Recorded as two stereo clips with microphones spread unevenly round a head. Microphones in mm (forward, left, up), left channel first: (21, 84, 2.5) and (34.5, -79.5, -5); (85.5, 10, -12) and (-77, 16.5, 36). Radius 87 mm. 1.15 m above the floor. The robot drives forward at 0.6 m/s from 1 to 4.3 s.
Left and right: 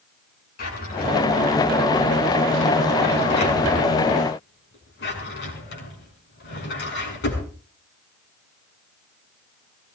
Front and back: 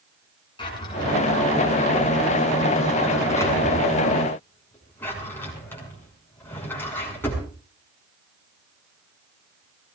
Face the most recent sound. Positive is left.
turn(degrees=75)